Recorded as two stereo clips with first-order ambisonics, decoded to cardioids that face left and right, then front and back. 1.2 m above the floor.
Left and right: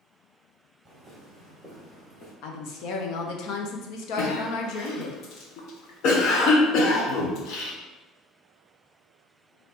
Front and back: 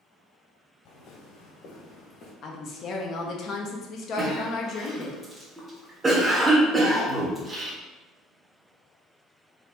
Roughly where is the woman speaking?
Ahead left.